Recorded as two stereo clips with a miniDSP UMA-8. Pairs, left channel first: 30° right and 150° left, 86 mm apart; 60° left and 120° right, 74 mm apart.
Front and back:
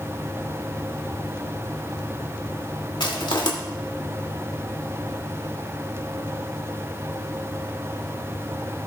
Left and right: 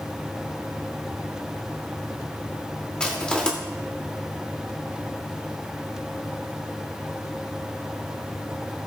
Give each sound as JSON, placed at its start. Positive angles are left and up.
{"t": 3.0, "sound": "crushing", "azimuth_deg": -20, "distance_m": 2.5}